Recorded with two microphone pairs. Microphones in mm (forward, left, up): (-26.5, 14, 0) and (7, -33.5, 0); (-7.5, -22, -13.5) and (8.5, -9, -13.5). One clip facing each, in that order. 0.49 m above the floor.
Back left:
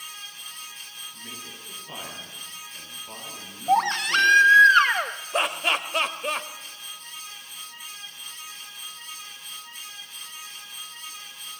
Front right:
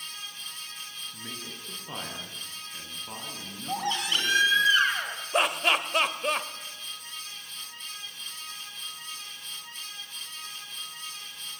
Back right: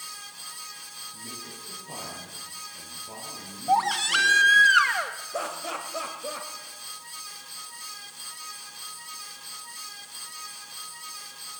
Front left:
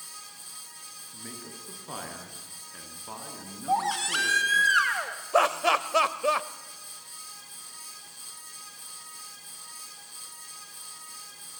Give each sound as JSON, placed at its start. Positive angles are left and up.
{"t": 1.1, "sound": "a man speaking", "azimuth_deg": 10, "distance_m": 8.5}
{"t": 3.7, "sound": "a baby crying", "azimuth_deg": 140, "distance_m": 1.9}
{"t": 5.3, "sound": "laughter", "azimuth_deg": 35, "distance_m": 1.5}